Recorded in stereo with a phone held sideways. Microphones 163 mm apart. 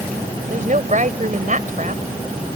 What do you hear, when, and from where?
0.5 s a woman speaking: 50° right (ahead or behind)